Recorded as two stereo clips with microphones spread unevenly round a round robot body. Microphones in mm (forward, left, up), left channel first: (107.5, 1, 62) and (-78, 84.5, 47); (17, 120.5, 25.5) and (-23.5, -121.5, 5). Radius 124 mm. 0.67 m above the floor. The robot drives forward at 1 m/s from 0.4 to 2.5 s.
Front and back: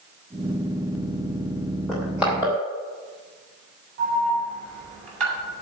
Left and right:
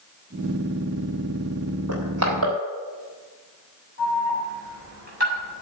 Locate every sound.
1.9 s crushing: 115° right, 3 m; by 2.5 s 125° right, 3.5 m
4.0 s an alarm: 150° right, 4 m